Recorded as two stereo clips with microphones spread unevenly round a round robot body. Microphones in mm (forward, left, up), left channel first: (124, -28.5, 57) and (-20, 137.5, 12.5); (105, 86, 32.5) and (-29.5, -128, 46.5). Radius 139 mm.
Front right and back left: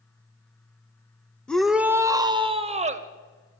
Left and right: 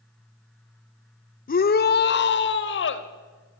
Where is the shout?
50° left, 1.0 m; by 3.1 s 90° left, 1.5 m.